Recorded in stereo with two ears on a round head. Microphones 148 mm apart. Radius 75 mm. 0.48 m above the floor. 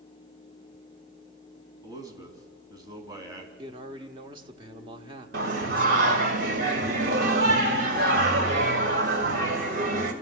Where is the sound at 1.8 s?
20° right (ahead or behind), 3.5 m.